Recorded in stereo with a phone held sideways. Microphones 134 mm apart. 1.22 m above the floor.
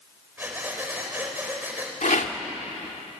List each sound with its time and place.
0.4 s breathing: 15° right (ahead or behind), 4 m
2.0 s a rattle: 70° left (ahead or behind), 1.8 m